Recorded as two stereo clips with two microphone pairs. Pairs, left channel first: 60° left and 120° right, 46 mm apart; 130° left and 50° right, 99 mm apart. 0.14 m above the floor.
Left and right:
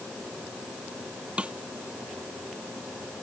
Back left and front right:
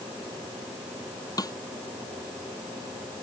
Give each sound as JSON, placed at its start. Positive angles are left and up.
{"t": 1.4, "sound": "a snare drum", "azimuth_deg": 180}